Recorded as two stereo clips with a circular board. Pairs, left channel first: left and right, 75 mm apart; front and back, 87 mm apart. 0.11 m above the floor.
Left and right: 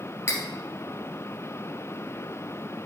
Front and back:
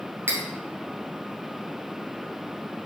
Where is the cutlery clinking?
130° left, 1.4 m.